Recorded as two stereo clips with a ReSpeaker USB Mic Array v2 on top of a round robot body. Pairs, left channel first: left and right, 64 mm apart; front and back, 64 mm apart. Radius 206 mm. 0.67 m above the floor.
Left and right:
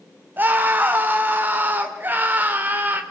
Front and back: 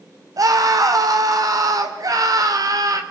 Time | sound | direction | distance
0.4 | a scream | 150° right | 2.5 m